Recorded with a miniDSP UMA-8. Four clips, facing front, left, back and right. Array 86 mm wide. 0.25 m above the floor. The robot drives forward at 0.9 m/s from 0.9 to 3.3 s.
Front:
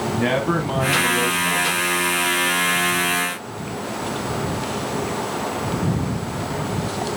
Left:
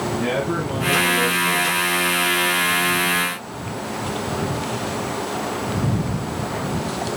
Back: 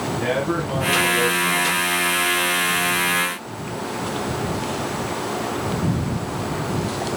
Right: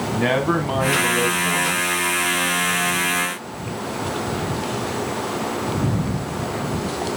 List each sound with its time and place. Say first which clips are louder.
0.1 s a man speaking: right 5 dB, front 1 dB; 65° right, 1.7 m; by 2.0 s 110° right, 1.7 m